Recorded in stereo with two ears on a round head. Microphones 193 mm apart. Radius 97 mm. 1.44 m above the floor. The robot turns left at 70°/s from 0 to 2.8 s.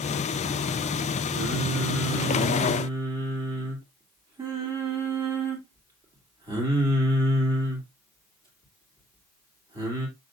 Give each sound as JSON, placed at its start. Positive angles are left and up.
{"t": 1.3, "sound": "singing", "azimuth_deg": -55, "distance_m": 2.0}